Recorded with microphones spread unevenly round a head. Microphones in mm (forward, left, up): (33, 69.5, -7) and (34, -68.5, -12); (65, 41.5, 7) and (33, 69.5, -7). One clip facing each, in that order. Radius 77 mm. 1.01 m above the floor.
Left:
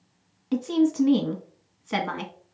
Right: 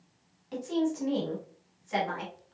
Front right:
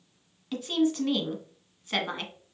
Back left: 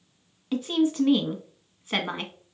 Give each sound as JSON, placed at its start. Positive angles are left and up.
{"t": 0.5, "sound": "a woman speaking", "azimuth_deg": 80, "distance_m": 0.8}